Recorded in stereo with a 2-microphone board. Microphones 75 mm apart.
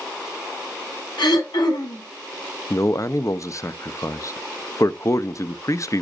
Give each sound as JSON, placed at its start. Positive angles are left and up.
{"t": 1.2, "sound": "throat clearing", "side_deg": 85, "distance_m": 5.5}
{"t": 2.7, "sound": "a man speaking", "side_deg": 45, "distance_m": 0.6}